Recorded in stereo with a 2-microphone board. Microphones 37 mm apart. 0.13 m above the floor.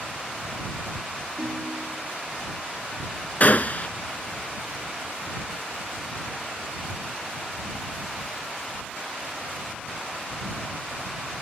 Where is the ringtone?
75° right (ahead or behind).